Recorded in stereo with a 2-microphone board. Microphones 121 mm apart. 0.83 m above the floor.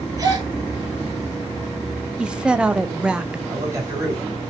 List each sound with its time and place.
0.2 s a gasp: 30° right (ahead or behind), 3 m
2.2 s a woman speaking: 5° right (ahead or behind), 0.6 m
3.5 s a man speaking: 25° right (ahead or behind), 3 m